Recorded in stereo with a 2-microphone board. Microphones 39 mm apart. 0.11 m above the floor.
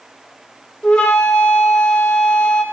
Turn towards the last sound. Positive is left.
turn(degrees=35)  # may be behind; listen again after turning